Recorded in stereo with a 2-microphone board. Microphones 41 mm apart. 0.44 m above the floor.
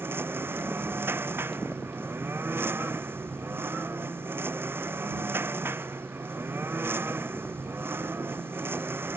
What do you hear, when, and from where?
0.0 s a lawn mower: 70° right (ahead or behind)